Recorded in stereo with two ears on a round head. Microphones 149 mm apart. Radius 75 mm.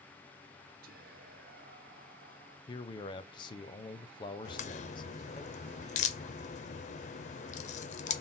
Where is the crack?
45° left (ahead or behind), 0.5 m.